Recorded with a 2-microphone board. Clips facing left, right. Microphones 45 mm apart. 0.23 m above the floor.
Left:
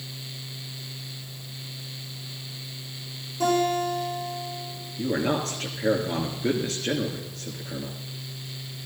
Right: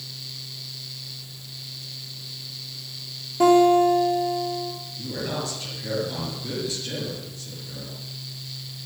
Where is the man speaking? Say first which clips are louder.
Left 6 dB; 50° left (ahead or behind), 3 m.